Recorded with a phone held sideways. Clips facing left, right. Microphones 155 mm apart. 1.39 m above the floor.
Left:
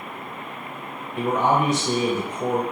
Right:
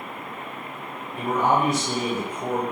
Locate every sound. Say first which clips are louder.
1.2 s a man speaking: left 1 dB; 75° left (ahead or behind), 1.1 m